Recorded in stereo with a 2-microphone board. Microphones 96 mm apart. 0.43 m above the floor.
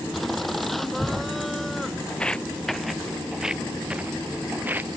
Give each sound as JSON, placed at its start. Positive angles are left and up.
{"t": 0.1, "sound": "laughter", "side_deg": 0}
{"t": 2.1, "sound": "footsteps", "side_deg": 10}